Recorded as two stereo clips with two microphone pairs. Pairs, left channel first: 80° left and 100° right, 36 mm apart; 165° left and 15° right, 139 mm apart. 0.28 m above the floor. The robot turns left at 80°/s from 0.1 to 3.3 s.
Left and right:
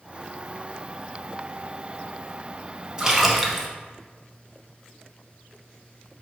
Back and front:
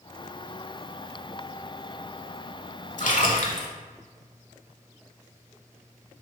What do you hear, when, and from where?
3.0 s a splash: 165° right, 0.6 m; by 3.7 s 170° left, 0.6 m